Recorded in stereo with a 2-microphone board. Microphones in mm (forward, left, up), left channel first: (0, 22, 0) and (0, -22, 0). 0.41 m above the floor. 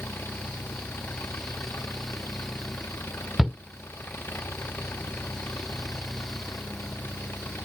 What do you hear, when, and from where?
0.0 s an engine running: 55° left (ahead or behind)
3.4 s a shout: 10° right (ahead or behind)